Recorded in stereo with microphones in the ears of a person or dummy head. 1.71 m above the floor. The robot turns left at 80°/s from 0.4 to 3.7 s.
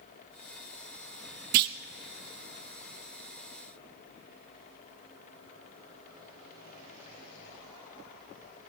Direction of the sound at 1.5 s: 50° right (ahead or behind).